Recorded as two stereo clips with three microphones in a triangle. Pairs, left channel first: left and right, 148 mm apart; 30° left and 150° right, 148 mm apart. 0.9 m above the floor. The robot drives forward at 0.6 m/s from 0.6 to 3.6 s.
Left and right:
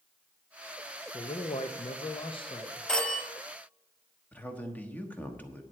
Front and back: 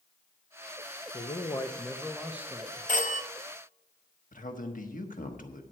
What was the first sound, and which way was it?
A man speaking, 50° left.